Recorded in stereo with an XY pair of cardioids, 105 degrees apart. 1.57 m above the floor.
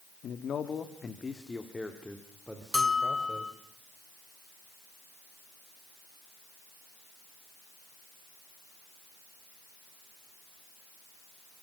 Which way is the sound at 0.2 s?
60° left.